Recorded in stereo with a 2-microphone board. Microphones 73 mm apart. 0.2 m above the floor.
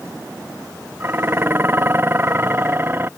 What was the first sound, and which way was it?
Dishes clattering, 30° right (ahead or behind).